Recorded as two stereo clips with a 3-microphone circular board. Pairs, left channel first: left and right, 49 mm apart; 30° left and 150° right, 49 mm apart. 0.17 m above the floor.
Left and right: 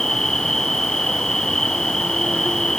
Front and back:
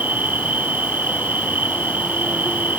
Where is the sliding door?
No sliding door in this recording.